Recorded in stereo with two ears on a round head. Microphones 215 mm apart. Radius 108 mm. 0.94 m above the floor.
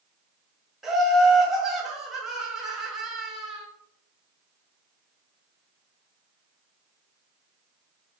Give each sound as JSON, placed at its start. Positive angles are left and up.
{"t": 0.8, "sound": "laughter", "side_deg": 0, "distance_m": 1.1}